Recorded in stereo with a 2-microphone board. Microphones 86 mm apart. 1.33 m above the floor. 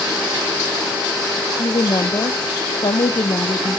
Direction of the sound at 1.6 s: 65° left (ahead or behind).